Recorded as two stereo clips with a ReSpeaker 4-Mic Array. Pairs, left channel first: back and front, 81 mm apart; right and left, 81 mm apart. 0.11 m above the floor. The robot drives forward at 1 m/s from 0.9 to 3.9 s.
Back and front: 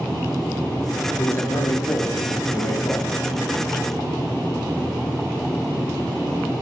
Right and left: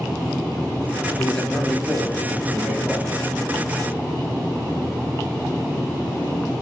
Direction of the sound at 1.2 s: 155° right.